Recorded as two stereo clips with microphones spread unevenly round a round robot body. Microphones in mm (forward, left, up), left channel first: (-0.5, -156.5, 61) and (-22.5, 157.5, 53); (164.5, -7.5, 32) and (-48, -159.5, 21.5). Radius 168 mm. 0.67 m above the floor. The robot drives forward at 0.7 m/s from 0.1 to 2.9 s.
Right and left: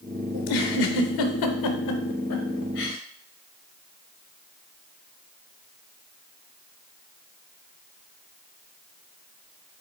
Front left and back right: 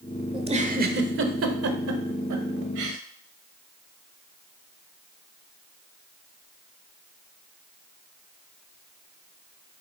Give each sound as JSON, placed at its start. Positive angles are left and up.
{"t": 0.3, "sound": "a giggle", "azimuth_deg": -70, "distance_m": 1.3}